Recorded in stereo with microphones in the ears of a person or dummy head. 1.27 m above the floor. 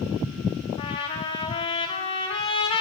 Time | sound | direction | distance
0.8 | a trumpet | 25° left (ahead or behind) | 1.6 m